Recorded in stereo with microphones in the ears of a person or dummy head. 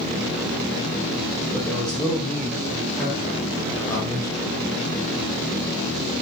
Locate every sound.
1.5 s a man speaking: 5° left (ahead or behind), 7.5 m; by 4.6 s 25° left (ahead or behind), 4 m